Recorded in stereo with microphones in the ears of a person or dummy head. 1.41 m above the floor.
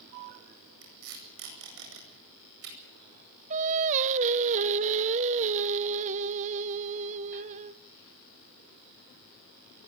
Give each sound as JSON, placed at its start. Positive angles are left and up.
{"t": 0.8, "sound": "tape being pulled", "side_deg": -65, "distance_m": 9.0}
{"t": 3.5, "sound": "singing", "side_deg": -40, "distance_m": 0.8}